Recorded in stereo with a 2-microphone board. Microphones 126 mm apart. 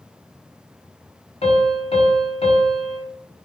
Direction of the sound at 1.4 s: 50° left (ahead or behind).